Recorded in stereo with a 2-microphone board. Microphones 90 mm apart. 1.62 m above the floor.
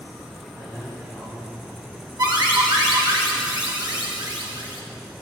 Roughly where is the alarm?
Right.